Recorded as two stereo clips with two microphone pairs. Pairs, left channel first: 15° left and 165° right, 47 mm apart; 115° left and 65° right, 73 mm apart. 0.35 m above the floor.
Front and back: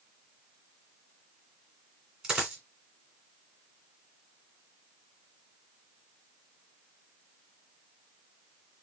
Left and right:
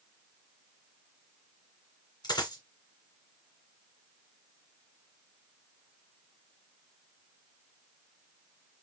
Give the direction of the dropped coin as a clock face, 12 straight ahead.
8 o'clock.